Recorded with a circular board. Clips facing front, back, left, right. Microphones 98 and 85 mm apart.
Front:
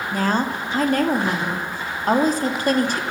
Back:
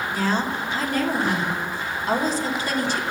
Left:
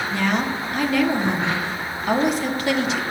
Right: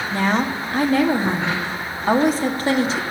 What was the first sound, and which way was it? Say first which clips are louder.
A woman speaking: front 3 dB, right 3 dB; 35° right.